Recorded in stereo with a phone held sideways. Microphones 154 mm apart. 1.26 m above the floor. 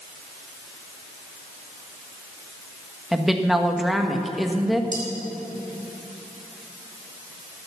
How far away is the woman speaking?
About 1.3 m.